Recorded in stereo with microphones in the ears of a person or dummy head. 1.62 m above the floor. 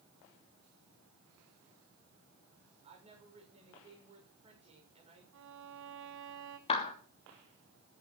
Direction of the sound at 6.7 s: 35° left (ahead or behind).